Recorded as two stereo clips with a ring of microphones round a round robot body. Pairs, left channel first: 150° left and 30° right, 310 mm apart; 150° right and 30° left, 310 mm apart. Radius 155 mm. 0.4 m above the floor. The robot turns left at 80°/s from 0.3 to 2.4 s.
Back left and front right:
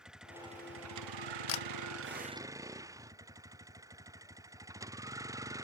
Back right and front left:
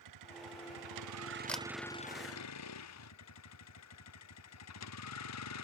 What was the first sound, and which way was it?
A vehicle, 60° left.